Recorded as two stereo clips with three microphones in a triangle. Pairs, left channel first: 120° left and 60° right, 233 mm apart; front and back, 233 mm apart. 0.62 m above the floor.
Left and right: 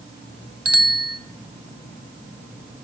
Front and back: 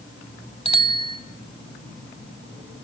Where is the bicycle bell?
65° right, 2.5 m.